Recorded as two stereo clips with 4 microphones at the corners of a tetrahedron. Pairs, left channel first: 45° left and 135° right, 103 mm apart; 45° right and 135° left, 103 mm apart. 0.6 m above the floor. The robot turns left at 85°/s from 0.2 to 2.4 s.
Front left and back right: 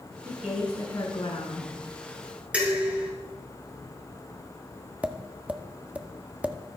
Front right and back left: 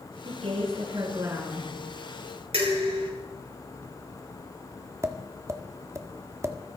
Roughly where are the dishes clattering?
Behind left.